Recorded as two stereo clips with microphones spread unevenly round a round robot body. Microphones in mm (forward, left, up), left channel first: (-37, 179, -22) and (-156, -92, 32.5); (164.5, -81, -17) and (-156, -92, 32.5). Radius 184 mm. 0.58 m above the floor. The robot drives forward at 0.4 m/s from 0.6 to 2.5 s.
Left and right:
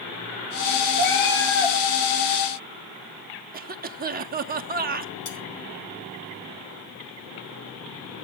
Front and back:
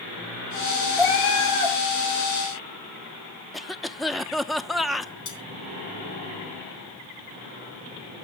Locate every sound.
1.0 s a cat meowing: 30° left, 4 m
3.5 s a cough: 70° right, 0.7 m
5.2 s cutlery clinking: 50° left, 5.5 m